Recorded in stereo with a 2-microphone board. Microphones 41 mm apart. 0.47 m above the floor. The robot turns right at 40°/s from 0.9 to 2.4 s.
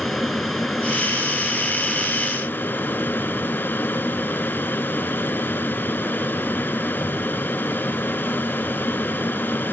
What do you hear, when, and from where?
0.0 s an aircraft: straight ahead; by 9.7 s 60° left